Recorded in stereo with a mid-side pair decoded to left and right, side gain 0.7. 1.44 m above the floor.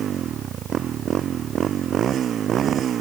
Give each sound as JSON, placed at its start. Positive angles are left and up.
{"t": 0.0, "sound": "a motorcycle", "azimuth_deg": -40}